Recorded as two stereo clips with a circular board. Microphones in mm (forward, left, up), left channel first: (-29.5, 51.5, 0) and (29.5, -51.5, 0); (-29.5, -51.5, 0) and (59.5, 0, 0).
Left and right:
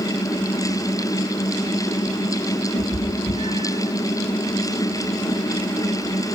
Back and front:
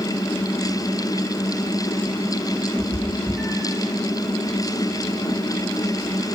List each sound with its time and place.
2.7 s a cat meowing: 105° left, 7 m; by 3.8 s 100° left, 7 m